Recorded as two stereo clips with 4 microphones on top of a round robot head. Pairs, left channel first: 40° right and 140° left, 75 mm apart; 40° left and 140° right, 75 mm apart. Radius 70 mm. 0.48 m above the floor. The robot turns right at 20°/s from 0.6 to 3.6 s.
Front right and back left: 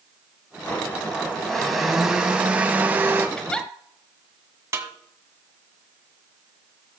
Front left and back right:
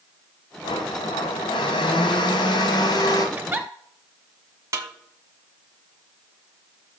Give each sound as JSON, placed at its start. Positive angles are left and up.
{"t": 0.6, "sound": "a blender", "azimuth_deg": 25, "distance_m": 1.3}
{"t": 3.4, "sound": "a giggle", "azimuth_deg": -105, "distance_m": 1.5}
{"t": 4.7, "sound": "a snare drum", "azimuth_deg": 180, "distance_m": 1.7}